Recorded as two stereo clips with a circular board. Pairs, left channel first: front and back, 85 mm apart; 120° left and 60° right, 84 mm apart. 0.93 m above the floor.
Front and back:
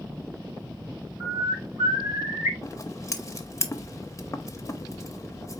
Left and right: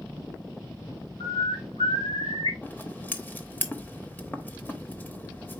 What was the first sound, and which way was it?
A bird, 130° left.